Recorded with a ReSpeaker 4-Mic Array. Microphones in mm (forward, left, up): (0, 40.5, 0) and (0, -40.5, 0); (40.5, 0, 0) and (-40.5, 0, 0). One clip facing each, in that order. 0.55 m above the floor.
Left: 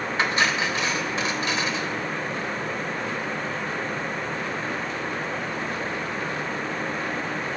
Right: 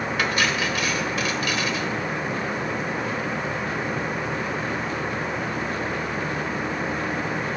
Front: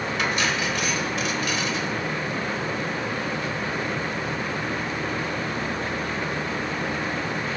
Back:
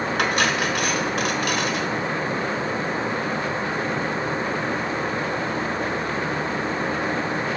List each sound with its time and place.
0.2 s cutlery clinking: 155° left, 1.0 m